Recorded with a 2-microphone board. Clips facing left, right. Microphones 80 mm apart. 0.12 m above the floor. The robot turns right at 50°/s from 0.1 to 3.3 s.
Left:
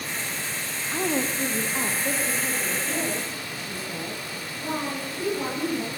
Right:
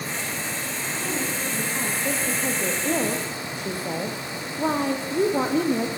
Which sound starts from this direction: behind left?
A woman speaking, at 0.9 s.